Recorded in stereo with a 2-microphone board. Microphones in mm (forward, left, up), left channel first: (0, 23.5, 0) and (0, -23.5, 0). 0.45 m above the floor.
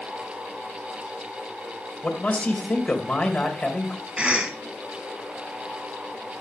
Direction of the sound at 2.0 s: 30° left (ahead or behind).